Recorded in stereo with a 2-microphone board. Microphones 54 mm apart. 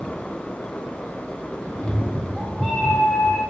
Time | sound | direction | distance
1.7 | a cat meowing | 10° right (ahead or behind) | 2 m